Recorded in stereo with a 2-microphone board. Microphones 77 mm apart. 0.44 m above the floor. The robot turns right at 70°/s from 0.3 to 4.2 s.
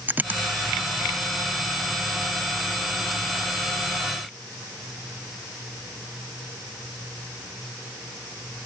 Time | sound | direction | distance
0.1 | a dropped coin | 20° right (ahead or behind) | ?